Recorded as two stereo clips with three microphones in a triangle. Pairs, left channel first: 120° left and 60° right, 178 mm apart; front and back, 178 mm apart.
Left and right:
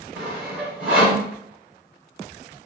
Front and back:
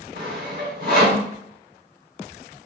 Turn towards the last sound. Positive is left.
turn(degrees=-145)